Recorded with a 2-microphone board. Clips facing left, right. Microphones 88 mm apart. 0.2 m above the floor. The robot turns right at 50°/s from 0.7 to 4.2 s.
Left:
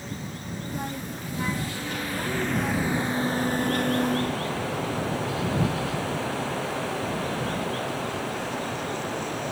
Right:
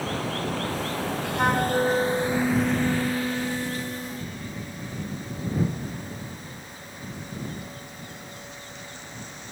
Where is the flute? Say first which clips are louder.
Right 9 dB; 100° right; by 4.4 s 40° left.